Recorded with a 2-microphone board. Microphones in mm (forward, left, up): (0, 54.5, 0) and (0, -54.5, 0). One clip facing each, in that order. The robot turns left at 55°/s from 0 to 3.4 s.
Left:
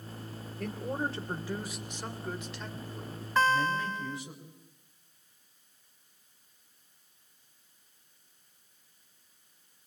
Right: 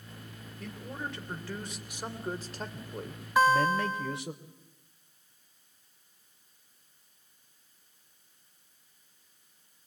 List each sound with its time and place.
0.6 s a man speaking: 65° left, 3 m; by 4.4 s 90° right, 3 m
3.4 s a guitar: 10° right (ahead or behind), 0.9 m